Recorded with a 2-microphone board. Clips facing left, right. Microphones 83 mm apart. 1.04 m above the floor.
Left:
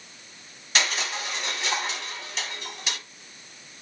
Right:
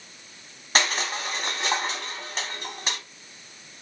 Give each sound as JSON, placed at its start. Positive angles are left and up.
{"t": 0.8, "sound": "crushing", "side_deg": -40, "distance_m": 0.9}